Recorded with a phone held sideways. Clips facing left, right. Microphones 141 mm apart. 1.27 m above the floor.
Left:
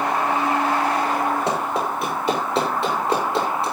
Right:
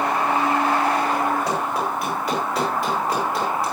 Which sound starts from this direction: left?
Running footsteps, at 1.5 s.